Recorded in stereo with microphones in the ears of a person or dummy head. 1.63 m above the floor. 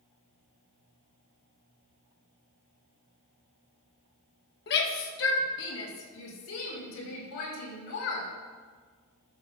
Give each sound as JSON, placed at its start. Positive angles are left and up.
{"t": 4.7, "sound": "a shout", "side_deg": 60, "distance_m": 1.5}